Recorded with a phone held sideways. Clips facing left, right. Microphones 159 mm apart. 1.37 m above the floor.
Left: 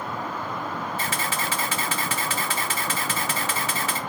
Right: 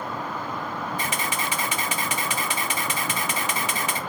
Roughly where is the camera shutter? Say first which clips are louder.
Even; centre.